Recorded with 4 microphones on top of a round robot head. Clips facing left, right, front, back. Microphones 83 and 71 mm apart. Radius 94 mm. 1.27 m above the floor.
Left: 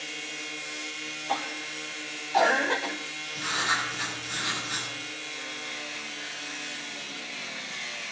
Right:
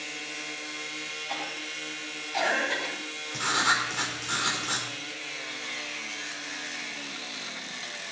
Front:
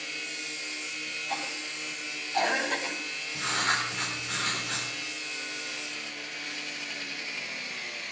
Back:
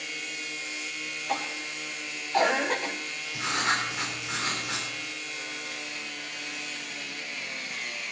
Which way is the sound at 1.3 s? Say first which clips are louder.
Left 6 dB, back 4 dB; 140° left.